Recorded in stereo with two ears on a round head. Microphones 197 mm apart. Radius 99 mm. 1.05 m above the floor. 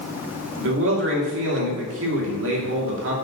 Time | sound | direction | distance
0.6 | a man speaking | 60° right (ahead or behind) | 2.5 m